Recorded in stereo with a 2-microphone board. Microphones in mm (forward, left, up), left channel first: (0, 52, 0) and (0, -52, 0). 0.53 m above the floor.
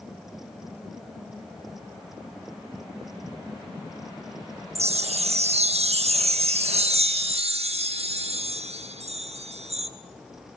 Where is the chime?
80° right, 0.6 m.